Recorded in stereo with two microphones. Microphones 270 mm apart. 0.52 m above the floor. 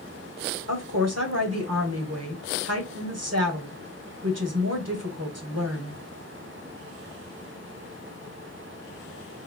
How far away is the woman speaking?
About 1.8 m.